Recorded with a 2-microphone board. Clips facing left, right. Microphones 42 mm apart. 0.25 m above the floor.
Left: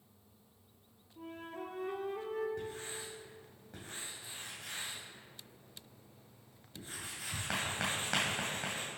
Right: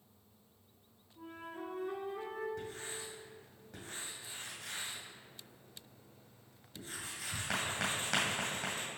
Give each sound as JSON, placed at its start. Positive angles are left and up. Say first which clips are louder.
{"t": 1.2, "sound": "a flute", "louder": "left 1 dB", "side_deg": 60, "distance_m": 1.0}
{"t": 2.6, "sound": "writing", "louder": "left 1 dB", "side_deg": 15, "distance_m": 2.5}